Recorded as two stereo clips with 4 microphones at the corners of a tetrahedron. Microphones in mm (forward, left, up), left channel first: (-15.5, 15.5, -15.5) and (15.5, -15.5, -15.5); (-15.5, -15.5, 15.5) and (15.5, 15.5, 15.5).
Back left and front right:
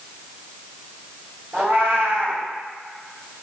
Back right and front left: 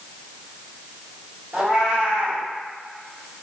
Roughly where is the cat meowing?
Ahead right.